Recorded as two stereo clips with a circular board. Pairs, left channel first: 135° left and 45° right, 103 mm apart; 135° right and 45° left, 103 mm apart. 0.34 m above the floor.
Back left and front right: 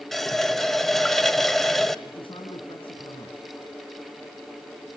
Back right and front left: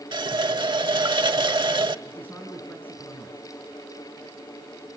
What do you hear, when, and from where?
0.1 s a running tap: 50° left, 0.8 m
2.0 s a man speaking: 155° left, 4 m